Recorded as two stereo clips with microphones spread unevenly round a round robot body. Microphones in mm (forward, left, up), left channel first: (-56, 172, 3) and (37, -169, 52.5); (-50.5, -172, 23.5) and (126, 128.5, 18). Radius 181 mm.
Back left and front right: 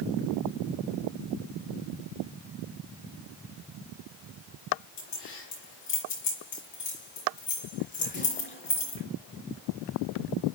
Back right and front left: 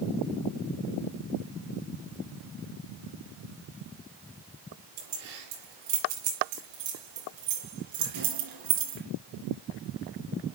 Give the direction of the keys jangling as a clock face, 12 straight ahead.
10 o'clock.